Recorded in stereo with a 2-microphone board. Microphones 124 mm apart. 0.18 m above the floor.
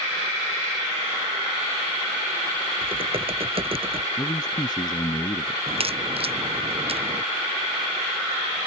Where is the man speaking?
35° left (ahead or behind).